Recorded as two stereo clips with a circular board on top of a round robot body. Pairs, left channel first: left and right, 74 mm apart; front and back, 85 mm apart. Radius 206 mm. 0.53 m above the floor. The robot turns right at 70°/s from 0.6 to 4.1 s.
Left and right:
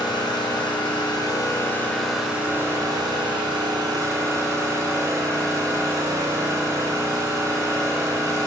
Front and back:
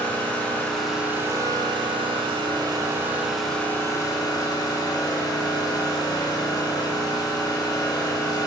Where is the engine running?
75° left, 2.5 m; by 8.5 s 40° right, 2.5 m.